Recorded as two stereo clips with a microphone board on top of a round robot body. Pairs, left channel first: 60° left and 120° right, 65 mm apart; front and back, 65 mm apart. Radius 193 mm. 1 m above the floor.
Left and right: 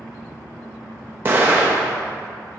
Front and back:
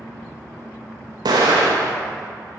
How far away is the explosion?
About 0.7 m.